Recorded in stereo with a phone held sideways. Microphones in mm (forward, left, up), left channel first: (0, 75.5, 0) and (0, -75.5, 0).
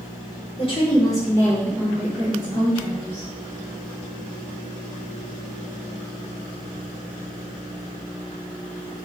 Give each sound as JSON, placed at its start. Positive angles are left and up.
{"t": 0.6, "sound": "a woman speaking", "side_deg": 40, "distance_m": 1.1}